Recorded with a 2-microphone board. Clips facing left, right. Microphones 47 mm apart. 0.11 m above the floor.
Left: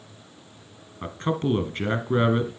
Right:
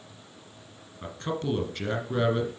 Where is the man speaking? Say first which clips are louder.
Left 5 dB; 30° left (ahead or behind), 1.5 m.